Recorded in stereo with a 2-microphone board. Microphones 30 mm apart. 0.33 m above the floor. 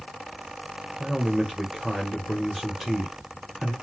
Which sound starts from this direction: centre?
A man speaking, at 1.0 s.